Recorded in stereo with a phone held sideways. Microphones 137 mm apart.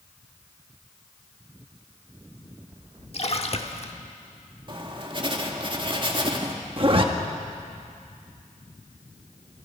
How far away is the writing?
About 1.9 m.